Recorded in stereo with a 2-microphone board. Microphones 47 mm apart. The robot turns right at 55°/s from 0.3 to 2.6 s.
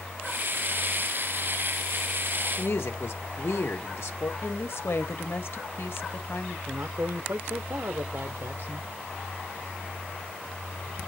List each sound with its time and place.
2.6 s a woman speaking: 65° left (ahead or behind), 1.6 m
4.4 s a woman speaking: 60° left (ahead or behind), 1.3 m
6.7 s a man speaking: 85° right, 0.8 m